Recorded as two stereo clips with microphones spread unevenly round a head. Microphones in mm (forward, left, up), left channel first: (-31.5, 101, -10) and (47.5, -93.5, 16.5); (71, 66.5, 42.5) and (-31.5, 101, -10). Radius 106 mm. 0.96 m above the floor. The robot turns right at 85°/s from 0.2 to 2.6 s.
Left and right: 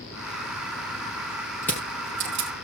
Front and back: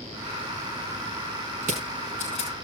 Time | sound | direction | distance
1.6 | crushing | 170° right | 5.5 m